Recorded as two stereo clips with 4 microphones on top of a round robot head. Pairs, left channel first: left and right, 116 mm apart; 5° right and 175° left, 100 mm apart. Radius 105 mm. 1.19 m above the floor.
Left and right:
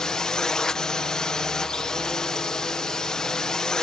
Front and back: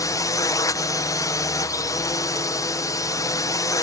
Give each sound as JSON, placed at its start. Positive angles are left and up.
{"t": 0.0, "sound": "a drone", "azimuth_deg": 10}